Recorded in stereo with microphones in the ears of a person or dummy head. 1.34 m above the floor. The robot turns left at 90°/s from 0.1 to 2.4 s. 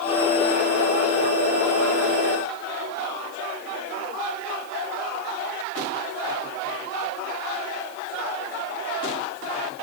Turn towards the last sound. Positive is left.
No sound to turn to.